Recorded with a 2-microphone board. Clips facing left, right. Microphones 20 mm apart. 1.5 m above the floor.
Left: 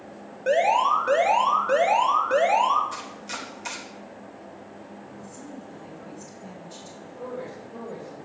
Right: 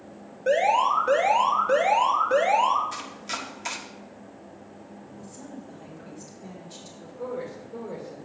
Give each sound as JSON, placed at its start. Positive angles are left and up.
{"t": 0.5, "sound": "an alarm", "side_deg": 15, "distance_m": 1.6}
{"t": 2.9, "sound": "chopping", "side_deg": -10, "distance_m": 1.5}
{"t": 5.2, "sound": "a woman speaking", "side_deg": -15, "distance_m": 4.0}
{"t": 7.0, "sound": "a man speaking", "side_deg": -15, "distance_m": 2.5}